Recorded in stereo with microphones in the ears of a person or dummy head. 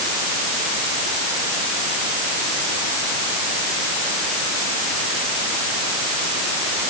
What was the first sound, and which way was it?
Only background noise.